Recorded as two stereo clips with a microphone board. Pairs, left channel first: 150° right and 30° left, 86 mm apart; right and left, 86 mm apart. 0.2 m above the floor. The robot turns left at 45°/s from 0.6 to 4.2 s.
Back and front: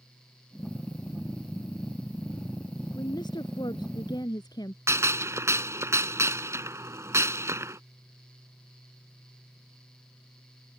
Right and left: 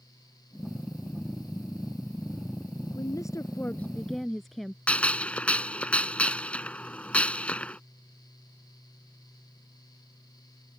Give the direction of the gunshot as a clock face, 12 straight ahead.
1 o'clock.